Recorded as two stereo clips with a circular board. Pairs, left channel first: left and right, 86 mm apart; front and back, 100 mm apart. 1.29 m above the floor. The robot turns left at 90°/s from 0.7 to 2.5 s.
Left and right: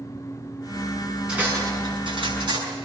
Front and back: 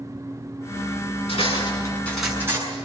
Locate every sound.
1.3 s cutlery clinking: 10° right, 7 m; by 2.6 s 115° right, 7 m